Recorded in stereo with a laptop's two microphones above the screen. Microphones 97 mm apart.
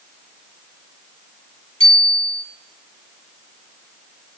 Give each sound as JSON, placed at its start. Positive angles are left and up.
{"t": 1.8, "sound": "a bicycle bell", "side_deg": 85, "distance_m": 7.0}